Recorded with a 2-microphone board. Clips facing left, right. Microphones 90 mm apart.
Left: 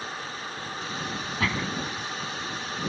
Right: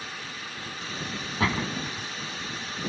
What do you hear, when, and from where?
1.4 s a door slam: 30° right (ahead or behind)